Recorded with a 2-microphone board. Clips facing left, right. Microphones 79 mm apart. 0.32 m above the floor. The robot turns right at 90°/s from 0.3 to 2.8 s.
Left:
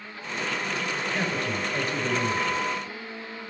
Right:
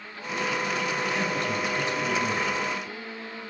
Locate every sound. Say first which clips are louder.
1.1 s a man speaking: right 1 dB; 45° left, 2.0 m; by 2.6 s straight behind, 2.0 m